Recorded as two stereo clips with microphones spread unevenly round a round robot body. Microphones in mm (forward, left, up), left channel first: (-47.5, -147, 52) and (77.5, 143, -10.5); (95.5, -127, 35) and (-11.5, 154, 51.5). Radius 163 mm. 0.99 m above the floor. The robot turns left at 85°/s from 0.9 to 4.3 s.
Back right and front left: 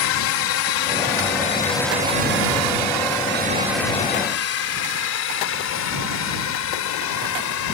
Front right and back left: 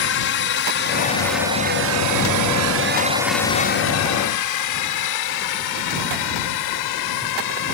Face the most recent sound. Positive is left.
turn(degrees=-75)